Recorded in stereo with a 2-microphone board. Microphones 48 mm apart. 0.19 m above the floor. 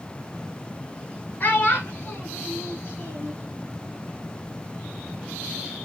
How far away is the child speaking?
About 1.4 m.